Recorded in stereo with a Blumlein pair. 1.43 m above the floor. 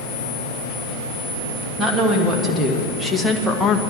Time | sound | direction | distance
1.8 | a woman speaking | 15° right | 2 m